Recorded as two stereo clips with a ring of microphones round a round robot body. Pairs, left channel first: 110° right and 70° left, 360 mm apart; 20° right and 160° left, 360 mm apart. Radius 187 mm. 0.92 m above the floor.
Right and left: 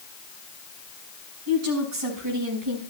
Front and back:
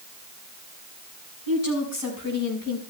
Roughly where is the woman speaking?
Ahead.